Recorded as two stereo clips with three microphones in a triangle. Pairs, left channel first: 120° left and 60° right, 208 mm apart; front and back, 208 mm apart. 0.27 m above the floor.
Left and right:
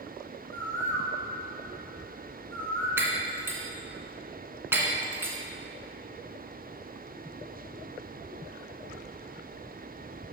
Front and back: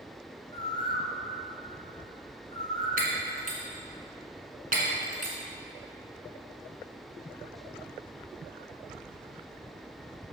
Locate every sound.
0.5 s a bird: 160° right, 1.9 m
3.0 s breaking glass: 140° right, 1.6 m